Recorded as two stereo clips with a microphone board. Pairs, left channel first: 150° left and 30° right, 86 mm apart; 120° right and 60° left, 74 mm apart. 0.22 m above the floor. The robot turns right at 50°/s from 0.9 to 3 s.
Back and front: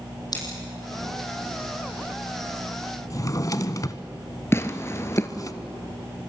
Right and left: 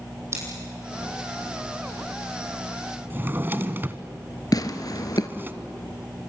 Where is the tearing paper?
150° right, 1.4 m.